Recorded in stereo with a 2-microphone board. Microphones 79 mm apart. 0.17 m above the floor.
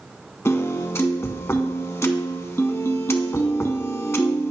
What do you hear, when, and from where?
0.5 s a piano: 35° left (ahead or behind), 0.7 m